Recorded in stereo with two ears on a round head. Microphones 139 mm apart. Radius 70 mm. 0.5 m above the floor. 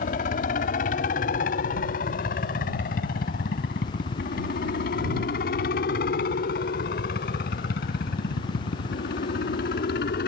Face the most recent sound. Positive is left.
turn(degrees=70)  # may be behind; listen again after turning